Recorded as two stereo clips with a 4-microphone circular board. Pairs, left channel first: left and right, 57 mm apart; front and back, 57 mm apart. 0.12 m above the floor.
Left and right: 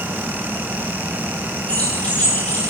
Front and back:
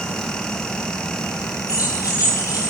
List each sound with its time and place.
1.7 s keys jangling: 20° left, 9 m; by 2.7 s 25° left, 9.5 m